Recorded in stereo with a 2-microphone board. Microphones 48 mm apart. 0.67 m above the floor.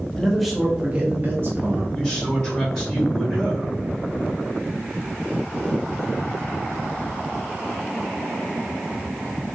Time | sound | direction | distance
0.2 | a man speaking | 10° left (ahead or behind) | 1.1 m
1.9 | a man speaking | 5° left (ahead or behind) | 2.5 m